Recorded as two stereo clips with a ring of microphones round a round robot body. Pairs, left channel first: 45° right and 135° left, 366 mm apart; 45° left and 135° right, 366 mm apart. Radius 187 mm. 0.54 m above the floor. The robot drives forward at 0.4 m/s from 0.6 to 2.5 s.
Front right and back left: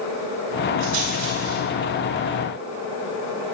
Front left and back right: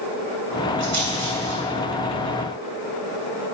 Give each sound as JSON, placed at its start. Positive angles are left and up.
{"t": 0.8, "sound": "a rattle", "azimuth_deg": 165, "distance_m": 4.5}